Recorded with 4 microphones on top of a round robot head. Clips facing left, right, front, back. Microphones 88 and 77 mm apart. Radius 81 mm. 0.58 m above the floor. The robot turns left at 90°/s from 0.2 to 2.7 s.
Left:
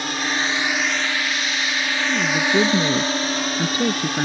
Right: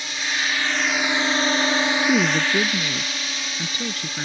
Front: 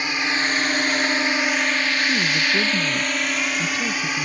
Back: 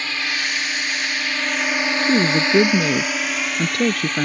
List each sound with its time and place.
0.0 s a drone: 70° left; by 4.2 s 80° left
2.0 s a woman speaking: 140° right; by 4.2 s 160° left